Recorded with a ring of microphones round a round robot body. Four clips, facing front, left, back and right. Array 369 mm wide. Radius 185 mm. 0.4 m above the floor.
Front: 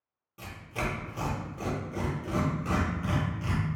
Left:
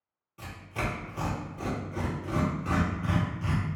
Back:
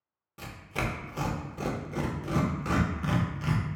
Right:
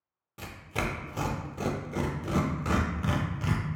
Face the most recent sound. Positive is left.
turn(degrees=-115)